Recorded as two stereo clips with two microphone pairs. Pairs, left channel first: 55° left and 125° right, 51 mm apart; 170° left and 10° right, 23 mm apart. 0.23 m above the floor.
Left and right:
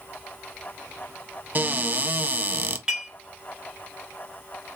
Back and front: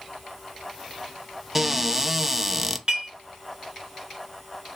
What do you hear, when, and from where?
1.6 s a cupboard door: 85° right, 0.5 m
2.9 s dishes clattering: 50° right, 1.7 m